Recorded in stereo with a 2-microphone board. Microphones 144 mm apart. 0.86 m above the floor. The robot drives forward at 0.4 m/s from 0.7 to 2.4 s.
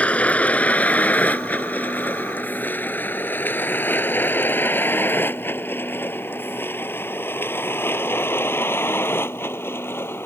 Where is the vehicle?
10° left (ahead or behind); by 10.3 s 15° left (ahead or behind).